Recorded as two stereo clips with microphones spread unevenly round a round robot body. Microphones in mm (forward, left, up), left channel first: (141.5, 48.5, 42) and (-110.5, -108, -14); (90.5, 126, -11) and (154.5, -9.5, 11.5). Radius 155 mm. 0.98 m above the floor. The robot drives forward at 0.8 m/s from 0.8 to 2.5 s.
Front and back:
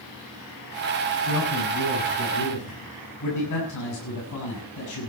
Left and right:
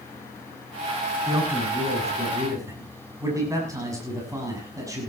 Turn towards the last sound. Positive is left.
turn(degrees=5)